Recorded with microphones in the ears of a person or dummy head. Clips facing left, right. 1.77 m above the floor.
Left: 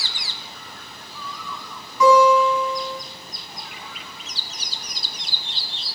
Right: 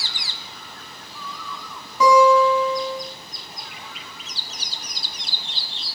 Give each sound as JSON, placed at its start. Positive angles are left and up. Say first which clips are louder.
{"t": 2.0, "sound": "a guitar", "louder": "even", "side_deg": -35, "distance_m": 5.0}